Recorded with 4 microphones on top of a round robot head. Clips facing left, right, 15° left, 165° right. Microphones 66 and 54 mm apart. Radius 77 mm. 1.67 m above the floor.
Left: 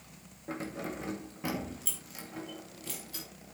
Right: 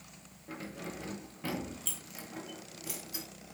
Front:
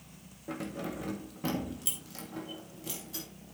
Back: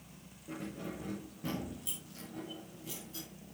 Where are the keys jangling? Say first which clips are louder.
Left 5 dB, front 5 dB; 35° left, 2 m; by 3.3 s 20° right, 2.5 m.